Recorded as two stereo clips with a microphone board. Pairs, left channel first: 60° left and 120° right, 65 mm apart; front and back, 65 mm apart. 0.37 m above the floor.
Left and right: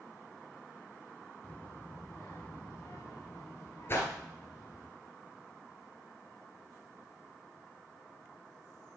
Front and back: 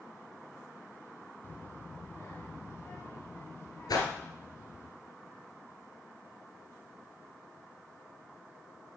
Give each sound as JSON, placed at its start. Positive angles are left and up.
{"t": 1.4, "sound": "a child speaking", "azimuth_deg": 10, "distance_m": 0.7}
{"t": 3.9, "sound": "a whoosh", "azimuth_deg": 5, "distance_m": 1.7}